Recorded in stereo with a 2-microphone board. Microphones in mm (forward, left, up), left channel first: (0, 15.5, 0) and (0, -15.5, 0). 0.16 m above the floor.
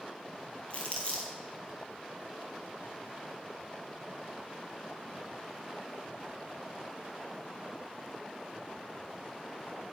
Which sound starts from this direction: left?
Crumpling, at 0.7 s.